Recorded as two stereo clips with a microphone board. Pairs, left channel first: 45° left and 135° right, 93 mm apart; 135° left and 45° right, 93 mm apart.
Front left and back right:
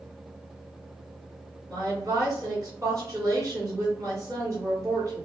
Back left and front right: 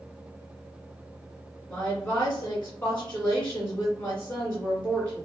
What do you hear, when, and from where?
1.7 s a woman speaking: 165° right, 1.7 m